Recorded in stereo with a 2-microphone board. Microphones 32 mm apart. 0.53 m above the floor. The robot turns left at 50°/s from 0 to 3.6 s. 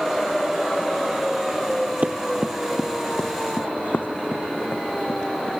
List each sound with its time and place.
2.0 s running footsteps: 50° right (ahead or behind); by 5.5 s 75° left (ahead or behind)